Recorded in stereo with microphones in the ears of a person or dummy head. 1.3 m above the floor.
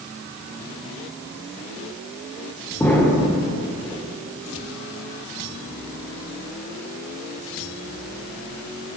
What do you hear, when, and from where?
2.8 s an explosion: 10° left (ahead or behind), 4.5 m